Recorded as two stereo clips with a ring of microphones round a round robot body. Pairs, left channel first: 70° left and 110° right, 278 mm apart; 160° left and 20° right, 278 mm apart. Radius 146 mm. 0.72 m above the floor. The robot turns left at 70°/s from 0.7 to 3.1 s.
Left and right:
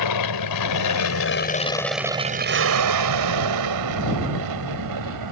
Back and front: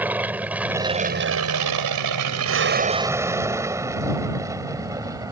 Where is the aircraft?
60° left; by 5.3 s 100° right.